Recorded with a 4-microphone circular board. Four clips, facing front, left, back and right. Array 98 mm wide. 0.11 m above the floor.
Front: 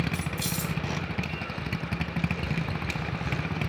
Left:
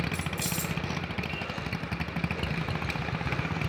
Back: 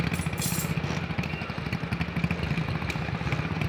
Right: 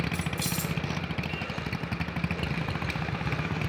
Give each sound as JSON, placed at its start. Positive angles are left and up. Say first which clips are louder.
{"t": 0.1, "sound": "keys jangling", "louder": "right 1 dB, back 1 dB", "azimuth_deg": -165, "distance_m": 1.8}